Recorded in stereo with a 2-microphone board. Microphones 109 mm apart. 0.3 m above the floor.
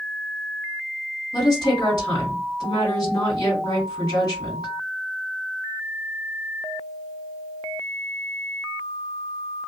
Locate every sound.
1.3 s a woman speaking: 35° left (ahead or behind), 1.7 m